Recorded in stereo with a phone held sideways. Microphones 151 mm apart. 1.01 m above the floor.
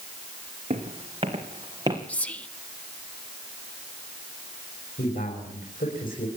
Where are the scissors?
No scissors in this recording.